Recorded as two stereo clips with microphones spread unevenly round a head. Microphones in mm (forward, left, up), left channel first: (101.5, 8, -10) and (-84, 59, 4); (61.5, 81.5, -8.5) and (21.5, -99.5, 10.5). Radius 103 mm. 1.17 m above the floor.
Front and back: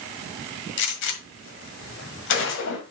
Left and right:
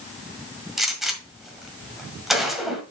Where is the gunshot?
20° right, 1.6 m.